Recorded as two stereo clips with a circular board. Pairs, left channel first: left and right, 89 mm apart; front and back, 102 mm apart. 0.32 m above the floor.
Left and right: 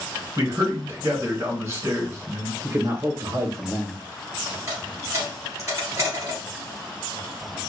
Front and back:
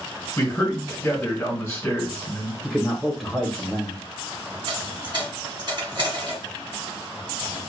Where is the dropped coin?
140° right, 2.5 m.